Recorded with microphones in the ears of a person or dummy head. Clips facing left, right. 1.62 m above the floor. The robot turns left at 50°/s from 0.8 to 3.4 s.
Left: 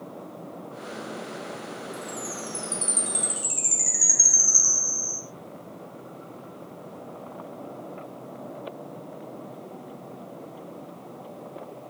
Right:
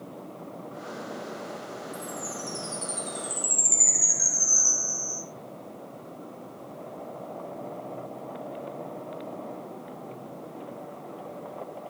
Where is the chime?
170° left, 3 m; by 5.2 s 100° left, 3 m.